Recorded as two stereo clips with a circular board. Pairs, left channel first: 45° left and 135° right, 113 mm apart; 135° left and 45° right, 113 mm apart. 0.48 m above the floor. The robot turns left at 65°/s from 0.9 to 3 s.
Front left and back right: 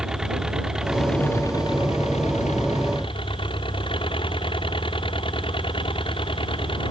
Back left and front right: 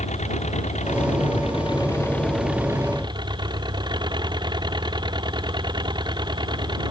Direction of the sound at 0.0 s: 140° left.